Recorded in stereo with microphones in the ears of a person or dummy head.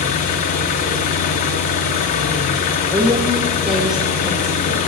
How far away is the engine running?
About 1.1 m.